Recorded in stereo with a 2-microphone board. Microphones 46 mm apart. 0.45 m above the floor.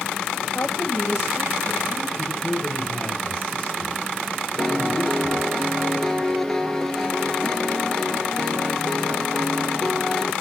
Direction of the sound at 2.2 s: 20° left (ahead or behind).